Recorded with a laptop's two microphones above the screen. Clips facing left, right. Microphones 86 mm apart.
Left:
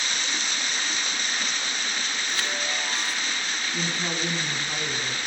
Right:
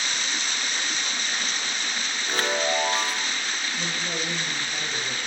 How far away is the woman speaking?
About 8 m.